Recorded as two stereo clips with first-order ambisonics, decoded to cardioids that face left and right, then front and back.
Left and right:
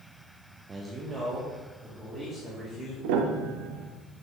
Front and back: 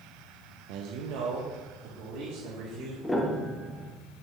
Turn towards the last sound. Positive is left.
turn(degrees=-80)